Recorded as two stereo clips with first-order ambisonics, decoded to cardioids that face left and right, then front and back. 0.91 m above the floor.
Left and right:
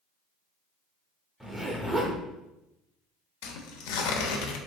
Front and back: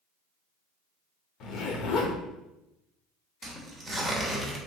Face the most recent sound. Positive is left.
turn(degrees=90)